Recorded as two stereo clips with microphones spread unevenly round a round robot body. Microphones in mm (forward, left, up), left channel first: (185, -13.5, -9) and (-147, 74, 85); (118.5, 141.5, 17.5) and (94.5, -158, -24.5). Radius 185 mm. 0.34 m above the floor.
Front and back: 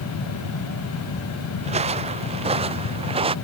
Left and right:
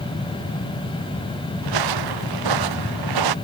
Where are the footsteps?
120° right.